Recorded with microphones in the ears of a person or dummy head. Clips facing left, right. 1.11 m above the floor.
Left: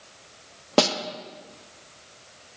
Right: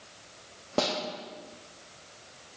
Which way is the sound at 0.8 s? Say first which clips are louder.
Left 7 dB; 85° left.